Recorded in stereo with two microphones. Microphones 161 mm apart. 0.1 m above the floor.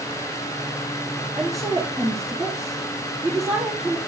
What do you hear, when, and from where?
1.4 s a woman speaking: centre (ahead or behind), 2.5 m